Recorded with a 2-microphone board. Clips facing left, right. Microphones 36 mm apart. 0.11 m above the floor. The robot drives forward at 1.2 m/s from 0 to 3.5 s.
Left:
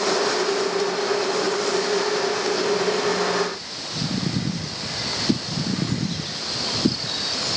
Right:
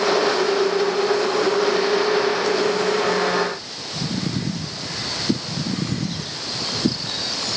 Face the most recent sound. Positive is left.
No sound to turn to.